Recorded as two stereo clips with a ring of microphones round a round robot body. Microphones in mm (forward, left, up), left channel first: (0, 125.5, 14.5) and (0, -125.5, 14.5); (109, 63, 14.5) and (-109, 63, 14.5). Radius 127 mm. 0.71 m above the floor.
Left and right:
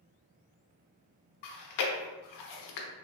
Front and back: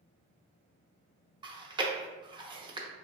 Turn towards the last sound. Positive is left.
turn(degrees=110)